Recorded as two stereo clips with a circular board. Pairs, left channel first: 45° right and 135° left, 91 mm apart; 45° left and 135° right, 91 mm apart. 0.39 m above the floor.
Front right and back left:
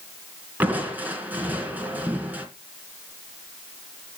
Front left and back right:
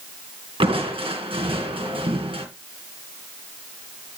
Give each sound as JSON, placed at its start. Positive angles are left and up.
{"t": 0.6, "sound": "crushing", "azimuth_deg": -155, "distance_m": 3.0}